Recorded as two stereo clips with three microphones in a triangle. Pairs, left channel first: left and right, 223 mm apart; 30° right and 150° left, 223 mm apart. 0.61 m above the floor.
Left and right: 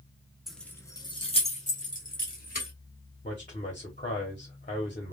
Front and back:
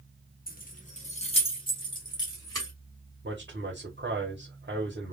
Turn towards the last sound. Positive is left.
turn(degrees=135)